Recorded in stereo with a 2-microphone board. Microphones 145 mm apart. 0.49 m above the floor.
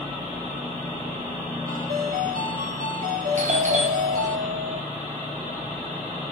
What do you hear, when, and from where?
1.7 s a ringtone: 85° right, 8 m
3.4 s a doorbell: 60° right (ahead or behind), 3 m